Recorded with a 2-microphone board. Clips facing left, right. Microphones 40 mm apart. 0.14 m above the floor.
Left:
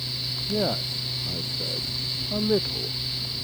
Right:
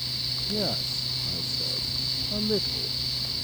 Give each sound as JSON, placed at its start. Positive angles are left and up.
{"t": 0.5, "sound": "a man speaking", "side_deg": 20}